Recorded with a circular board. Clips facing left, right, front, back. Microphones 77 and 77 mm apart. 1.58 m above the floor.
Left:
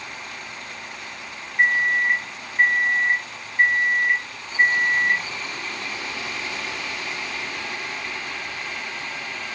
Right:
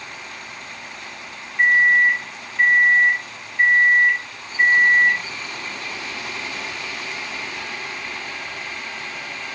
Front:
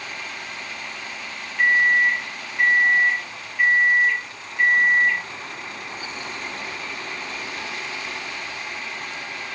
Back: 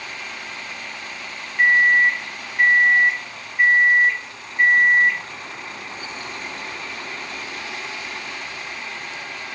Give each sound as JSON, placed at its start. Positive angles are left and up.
{"t": 1.6, "sound": "a microwave", "azimuth_deg": 140, "distance_m": 1.2}